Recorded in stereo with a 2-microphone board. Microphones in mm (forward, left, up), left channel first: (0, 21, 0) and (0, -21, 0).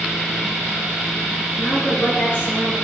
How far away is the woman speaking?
About 6.5 m.